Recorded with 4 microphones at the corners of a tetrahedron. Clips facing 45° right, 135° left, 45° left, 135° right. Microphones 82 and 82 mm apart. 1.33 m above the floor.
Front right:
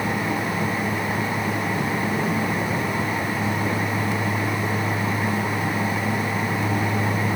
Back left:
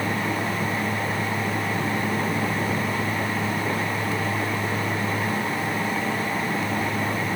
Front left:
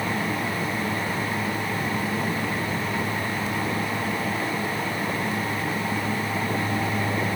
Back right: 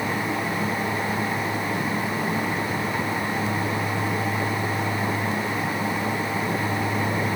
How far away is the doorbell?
No doorbell in this recording.